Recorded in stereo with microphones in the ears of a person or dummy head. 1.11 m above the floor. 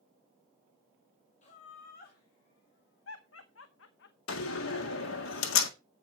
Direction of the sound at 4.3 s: 70° left (ahead or behind).